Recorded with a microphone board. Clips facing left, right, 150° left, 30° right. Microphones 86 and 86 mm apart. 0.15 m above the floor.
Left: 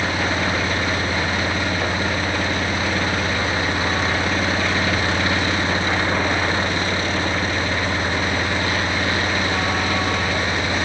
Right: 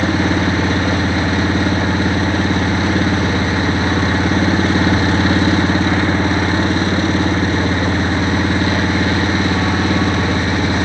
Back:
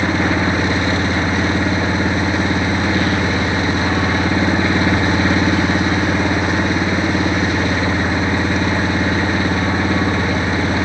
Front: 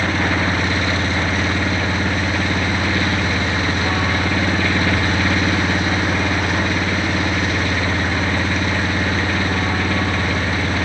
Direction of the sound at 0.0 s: 140° right.